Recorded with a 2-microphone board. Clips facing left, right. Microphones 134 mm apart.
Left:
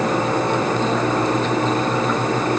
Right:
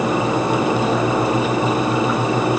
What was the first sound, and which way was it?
Only background noise.